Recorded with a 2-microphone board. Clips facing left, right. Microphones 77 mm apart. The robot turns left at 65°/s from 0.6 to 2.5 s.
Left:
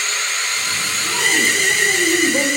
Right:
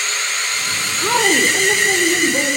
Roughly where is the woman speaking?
Right.